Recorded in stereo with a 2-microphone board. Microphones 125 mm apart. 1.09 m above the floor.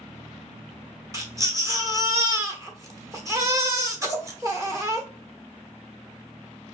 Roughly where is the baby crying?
Right.